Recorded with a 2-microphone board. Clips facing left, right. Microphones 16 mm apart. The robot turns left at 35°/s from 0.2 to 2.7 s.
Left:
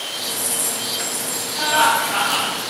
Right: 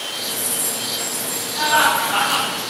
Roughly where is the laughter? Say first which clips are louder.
Even; right.